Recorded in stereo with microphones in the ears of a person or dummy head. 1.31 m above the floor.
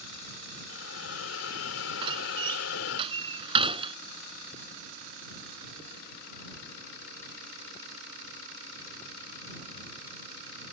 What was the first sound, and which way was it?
A hiss, 65° left (ahead or behind).